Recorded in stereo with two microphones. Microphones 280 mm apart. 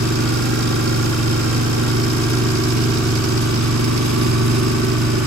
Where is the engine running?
80° right.